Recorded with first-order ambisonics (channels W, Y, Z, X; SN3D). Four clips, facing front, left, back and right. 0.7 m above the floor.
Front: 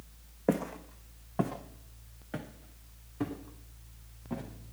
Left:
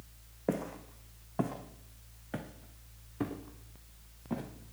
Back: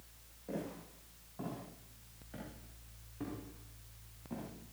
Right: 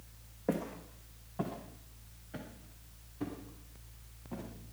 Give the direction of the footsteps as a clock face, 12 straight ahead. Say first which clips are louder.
Left 1 dB, front 12 dB; 12 o'clock.